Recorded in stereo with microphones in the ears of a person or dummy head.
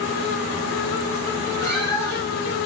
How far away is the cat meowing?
About 1.2 m.